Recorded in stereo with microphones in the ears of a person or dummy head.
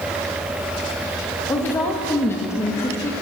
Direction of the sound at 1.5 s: 15° left (ahead or behind).